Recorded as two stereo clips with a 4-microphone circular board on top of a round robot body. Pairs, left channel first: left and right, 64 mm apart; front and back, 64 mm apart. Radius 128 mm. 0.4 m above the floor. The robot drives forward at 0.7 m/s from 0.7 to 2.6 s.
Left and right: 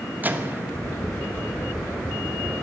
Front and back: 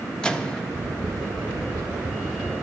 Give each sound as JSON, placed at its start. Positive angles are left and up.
{"t": 0.2, "sound": "a microwave", "azimuth_deg": -65, "distance_m": 1.2}